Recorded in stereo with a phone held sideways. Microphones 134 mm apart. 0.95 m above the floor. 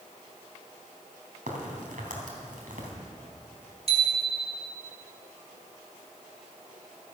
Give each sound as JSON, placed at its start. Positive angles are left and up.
{"t": 1.5, "sound": "a crack", "side_deg": -80, "distance_m": 3.0}
{"t": 3.9, "sound": "a bicycle bell", "side_deg": -45, "distance_m": 2.0}